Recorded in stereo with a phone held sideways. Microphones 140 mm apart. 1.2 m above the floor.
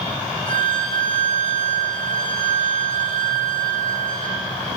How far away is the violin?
About 2.5 m.